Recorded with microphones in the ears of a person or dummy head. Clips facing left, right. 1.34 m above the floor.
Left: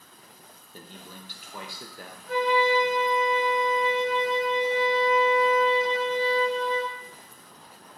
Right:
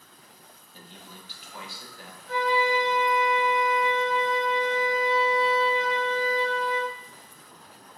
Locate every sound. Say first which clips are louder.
0.7 s a man speaking: left 3 dB; 45° left (ahead or behind), 0.9 m
2.3 s a flute: left 2 dB; 25° right (ahead or behind), 2.5 m